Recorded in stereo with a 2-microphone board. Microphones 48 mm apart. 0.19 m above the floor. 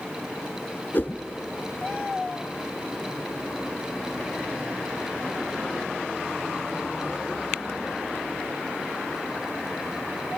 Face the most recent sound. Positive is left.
turn(degrees=45)  # may be behind; listen again after turning